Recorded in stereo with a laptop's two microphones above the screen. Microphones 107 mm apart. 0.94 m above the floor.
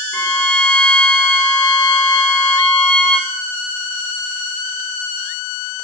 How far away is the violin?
About 1.2 m.